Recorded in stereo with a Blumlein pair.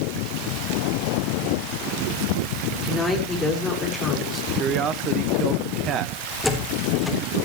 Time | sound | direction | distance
2.8 | a woman speaking | 10° left | 5.5 m
4.5 | a man speaking | 30° right | 1.2 m
6.4 | a door slam | 5° left | 4 m